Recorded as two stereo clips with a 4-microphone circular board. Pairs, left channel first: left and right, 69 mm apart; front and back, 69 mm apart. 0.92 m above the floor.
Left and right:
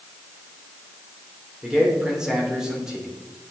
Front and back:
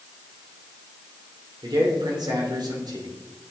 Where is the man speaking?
170° right, 3 m.